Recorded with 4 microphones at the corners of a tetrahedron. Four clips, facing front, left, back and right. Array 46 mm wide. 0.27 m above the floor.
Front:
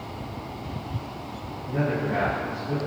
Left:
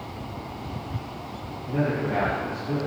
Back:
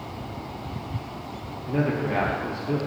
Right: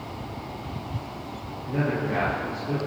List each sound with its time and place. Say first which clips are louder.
1.7 s a man speaking: left 1 dB, back 1 dB; 175° right, 6 m